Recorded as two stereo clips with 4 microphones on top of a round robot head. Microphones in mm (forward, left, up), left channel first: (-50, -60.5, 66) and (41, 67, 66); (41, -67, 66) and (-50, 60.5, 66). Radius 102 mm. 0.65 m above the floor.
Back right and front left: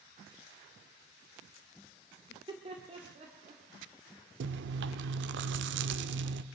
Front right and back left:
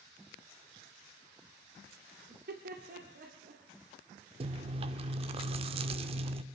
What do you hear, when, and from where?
2.3 s laughter: 120° left, 1.8 m; by 3.6 s 95° left, 1.9 m
4.4 s chewing: 70° left, 0.5 m